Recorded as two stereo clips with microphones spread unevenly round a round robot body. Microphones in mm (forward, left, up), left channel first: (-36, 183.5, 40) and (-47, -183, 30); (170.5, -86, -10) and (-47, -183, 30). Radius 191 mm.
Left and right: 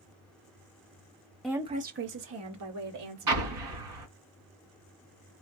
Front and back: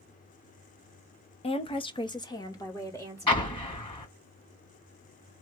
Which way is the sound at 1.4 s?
5° right.